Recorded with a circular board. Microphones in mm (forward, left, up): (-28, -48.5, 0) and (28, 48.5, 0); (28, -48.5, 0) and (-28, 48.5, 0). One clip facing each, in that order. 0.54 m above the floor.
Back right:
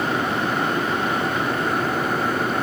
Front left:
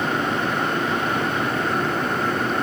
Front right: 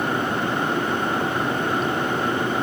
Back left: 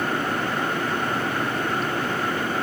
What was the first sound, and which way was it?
Only background noise.